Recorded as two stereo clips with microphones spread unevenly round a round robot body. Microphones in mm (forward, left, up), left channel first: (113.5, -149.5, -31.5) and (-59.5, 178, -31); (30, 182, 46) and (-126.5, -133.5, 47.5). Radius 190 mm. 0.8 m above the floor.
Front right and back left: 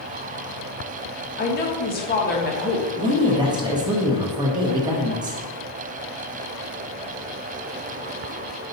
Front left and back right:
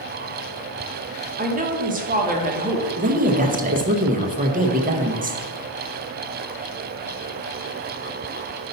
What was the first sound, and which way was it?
A woman speaking, 85° right.